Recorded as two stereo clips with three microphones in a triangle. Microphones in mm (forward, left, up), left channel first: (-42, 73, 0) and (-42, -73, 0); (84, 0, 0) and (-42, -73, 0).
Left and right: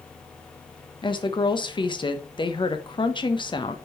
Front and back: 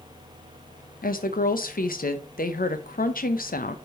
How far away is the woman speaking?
About 0.9 m.